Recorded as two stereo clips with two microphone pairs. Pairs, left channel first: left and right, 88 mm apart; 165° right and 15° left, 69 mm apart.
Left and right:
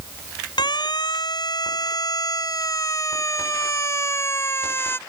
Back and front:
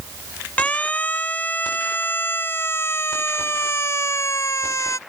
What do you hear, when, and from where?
0.6 s a siren: 125° left; by 5.0 s 155° left